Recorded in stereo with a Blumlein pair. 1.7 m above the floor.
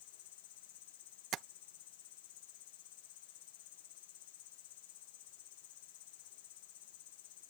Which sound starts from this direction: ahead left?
An insect, at 0.0 s.